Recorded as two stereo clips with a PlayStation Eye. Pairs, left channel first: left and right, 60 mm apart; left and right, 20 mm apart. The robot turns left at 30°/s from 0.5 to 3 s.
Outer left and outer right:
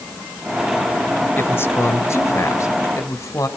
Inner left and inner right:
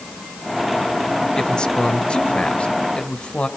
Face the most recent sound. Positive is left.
turn(degrees=85)